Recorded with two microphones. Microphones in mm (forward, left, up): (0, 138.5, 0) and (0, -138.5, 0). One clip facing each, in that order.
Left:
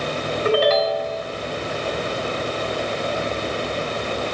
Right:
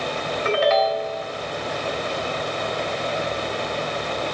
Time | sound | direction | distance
0.5 | a ringtone | 40° left (ahead or behind) | 3 m